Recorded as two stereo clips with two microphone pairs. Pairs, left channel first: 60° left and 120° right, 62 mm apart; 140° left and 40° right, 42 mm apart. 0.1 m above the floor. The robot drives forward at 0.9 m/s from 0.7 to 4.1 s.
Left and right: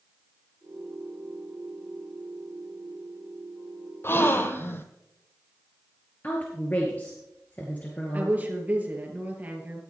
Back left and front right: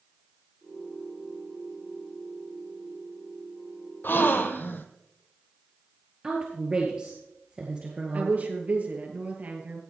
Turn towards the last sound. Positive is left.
turn(degrees=-65)